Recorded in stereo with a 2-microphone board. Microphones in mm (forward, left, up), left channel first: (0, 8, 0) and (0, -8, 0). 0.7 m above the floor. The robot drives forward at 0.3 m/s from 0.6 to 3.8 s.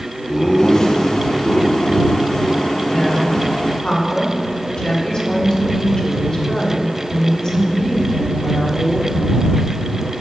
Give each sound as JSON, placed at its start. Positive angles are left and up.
{"t": 0.3, "sound": "laughter", "side_deg": 35, "distance_m": 0.9}
{"t": 2.9, "sound": "a woman speaking", "side_deg": 55, "distance_m": 1.2}